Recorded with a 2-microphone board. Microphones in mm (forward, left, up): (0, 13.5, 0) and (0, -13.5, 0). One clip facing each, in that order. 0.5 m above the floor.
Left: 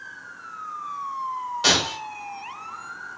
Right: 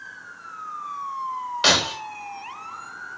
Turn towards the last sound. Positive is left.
turn(degrees=-30)  # may be behind; listen again after turning